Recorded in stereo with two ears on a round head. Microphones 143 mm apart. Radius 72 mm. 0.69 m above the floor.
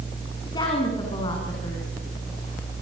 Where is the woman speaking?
25° left (ahead or behind), 6 m.